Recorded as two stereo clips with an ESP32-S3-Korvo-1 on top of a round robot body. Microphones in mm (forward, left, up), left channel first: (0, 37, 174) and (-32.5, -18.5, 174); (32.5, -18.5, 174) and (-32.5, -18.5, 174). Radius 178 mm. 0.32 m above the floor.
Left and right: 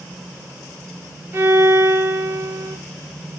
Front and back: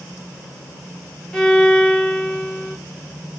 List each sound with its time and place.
1.3 s a violin: 75° right, 3 m